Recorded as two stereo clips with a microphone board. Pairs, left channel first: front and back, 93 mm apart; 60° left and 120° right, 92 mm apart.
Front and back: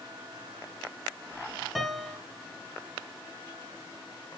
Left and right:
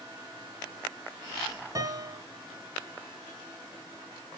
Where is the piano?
90° right, 1.0 m.